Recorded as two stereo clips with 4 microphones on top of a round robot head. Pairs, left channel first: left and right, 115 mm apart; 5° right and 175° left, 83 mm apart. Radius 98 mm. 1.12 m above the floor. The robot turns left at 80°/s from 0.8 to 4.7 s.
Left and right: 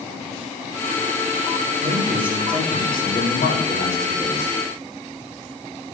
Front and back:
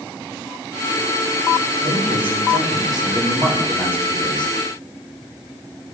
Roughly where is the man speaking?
Behind right.